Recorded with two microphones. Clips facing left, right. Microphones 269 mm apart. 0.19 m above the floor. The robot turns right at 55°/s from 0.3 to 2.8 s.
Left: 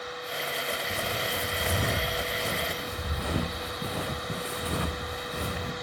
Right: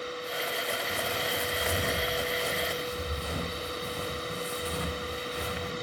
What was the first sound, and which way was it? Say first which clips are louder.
Footsteps: even; 35° left (ahead or behind).